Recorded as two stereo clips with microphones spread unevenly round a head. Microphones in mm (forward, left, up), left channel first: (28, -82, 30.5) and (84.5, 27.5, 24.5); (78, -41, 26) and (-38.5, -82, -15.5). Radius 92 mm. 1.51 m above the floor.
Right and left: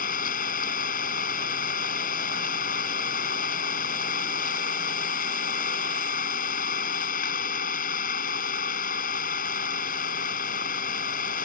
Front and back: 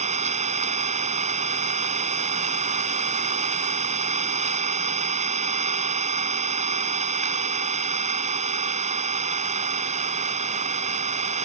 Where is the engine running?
125° right.